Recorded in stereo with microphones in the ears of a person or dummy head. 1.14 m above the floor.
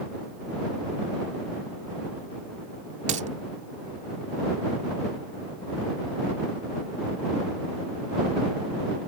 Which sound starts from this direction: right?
A dropped coin, at 3.1 s.